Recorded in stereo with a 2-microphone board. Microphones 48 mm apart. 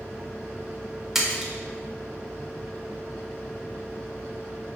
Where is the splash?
5° right (ahead or behind), 0.6 m.